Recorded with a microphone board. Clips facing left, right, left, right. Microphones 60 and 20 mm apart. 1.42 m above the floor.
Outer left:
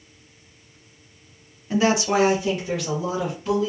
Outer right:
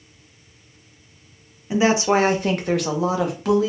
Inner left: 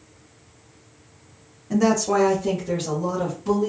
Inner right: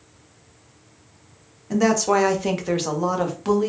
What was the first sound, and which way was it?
A woman speaking, 15° right (ahead or behind).